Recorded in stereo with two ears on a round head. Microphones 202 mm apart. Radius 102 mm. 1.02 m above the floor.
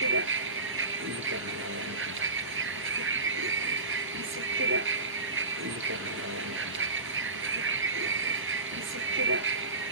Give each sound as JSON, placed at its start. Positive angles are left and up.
{"t": 0.0, "sound": "a vehicle", "side_deg": -60}